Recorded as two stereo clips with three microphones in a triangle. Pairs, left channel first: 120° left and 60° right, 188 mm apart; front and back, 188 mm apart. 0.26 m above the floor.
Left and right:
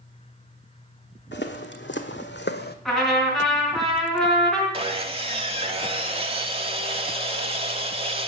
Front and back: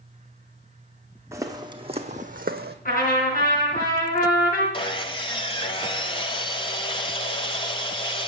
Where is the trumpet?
30° left, 3 m.